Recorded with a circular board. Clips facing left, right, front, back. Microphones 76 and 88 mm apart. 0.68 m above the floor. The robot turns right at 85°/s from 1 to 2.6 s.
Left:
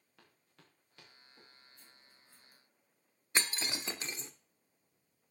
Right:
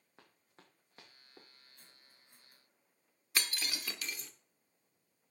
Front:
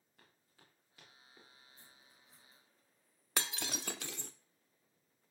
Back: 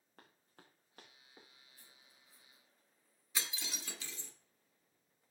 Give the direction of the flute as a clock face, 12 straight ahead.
I don't hear a flute.